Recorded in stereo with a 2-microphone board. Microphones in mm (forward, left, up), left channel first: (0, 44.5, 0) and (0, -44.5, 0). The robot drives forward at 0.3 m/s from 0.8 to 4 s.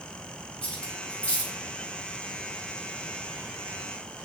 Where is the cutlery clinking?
10° left (ahead or behind), 1.3 m.